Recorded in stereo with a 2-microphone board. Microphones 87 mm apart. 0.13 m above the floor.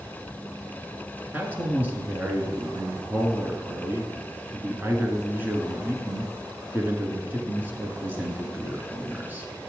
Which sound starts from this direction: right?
A man speaking, at 1.3 s.